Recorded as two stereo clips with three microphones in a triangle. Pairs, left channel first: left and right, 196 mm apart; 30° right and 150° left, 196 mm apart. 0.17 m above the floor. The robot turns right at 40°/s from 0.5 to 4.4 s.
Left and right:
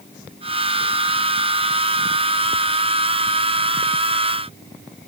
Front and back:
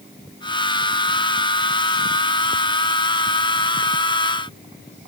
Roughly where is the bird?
I don't hear a bird.